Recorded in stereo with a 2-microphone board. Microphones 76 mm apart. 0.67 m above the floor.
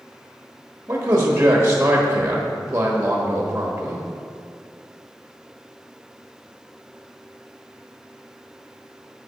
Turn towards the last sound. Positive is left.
turn(degrees=-20)  # may be behind; listen again after turning